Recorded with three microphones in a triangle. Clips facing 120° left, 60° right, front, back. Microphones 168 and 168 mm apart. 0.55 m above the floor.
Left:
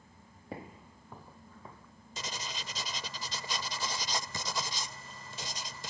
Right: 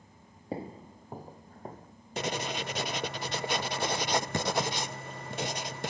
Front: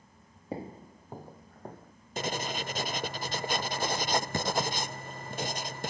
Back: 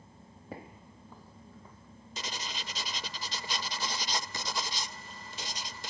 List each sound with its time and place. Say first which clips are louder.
0.5 s footsteps: right 7 dB, front 8 dB; 35° right; by 1.9 s 20° right
2.2 s writing: right 10 dB, front 9 dB; 35° right